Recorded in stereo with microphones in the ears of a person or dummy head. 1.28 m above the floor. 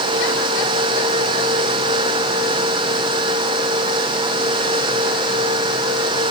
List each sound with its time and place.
Only background noise.